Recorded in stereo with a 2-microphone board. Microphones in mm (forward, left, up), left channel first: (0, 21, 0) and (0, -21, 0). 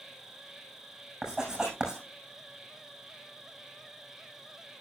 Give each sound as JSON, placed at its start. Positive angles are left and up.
{"t": 0.0, "sound": "an insect", "side_deg": -15, "distance_m": 3.0}
{"t": 1.2, "sound": "writing", "side_deg": -15, "distance_m": 6.5}